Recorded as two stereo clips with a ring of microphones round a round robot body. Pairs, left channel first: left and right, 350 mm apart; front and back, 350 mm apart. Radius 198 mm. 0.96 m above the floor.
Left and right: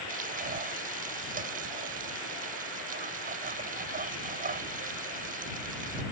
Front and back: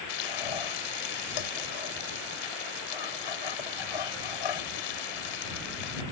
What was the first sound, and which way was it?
Frying, 20° right.